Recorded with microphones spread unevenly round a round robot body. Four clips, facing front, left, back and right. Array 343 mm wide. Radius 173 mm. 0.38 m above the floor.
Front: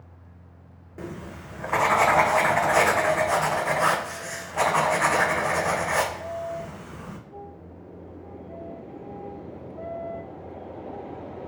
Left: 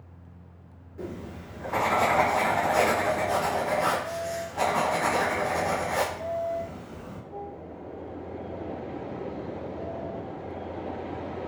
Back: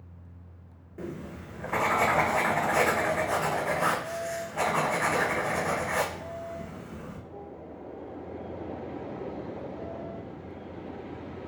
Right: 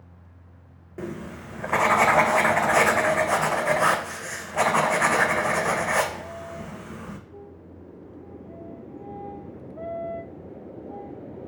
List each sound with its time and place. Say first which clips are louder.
1.0 s writing: right 3 dB, front 1 dB; 70° right, 0.7 m